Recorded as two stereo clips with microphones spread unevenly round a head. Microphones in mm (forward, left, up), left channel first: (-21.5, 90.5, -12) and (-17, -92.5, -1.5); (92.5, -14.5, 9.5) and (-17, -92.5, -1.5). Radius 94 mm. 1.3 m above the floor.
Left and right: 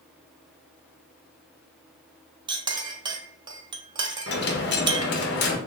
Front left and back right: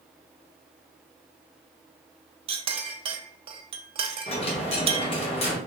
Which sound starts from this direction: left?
A dropped coin, at 4.3 s.